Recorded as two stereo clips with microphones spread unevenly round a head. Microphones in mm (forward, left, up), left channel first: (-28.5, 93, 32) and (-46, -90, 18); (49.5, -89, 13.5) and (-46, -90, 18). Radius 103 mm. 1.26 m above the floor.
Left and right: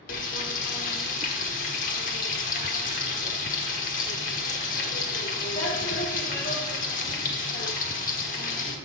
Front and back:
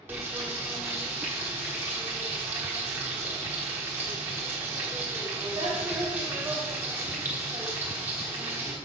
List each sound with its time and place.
0.1 s frying: 110° left, 1.1 m